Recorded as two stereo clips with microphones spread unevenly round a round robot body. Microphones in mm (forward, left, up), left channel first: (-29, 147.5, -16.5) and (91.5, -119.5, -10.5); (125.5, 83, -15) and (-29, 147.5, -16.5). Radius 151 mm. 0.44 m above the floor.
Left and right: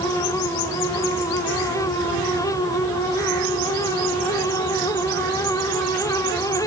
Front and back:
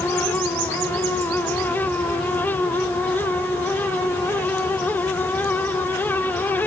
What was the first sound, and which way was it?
Only background noise.